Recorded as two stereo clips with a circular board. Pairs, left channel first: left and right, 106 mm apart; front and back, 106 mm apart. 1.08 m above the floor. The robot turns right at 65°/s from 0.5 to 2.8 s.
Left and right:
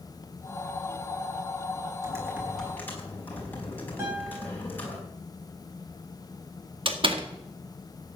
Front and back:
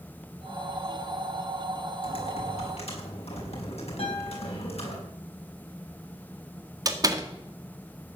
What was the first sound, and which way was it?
Typing on a keyboard, 35° right.